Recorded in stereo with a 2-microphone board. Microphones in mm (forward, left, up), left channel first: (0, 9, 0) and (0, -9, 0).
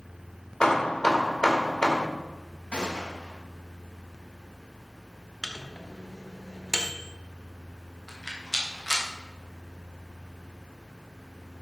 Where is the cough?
No cough in this recording.